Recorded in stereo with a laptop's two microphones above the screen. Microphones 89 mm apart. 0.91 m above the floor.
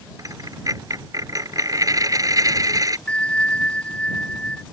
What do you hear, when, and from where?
0.2 s a dropped coin: 40° right (ahead or behind)
3.1 s a bell: 10° left (ahead or behind)